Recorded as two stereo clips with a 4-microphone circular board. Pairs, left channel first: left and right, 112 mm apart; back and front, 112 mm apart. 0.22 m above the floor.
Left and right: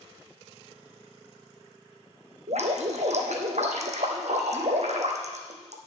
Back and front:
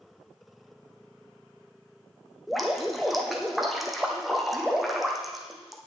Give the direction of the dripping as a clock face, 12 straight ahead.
3 o'clock.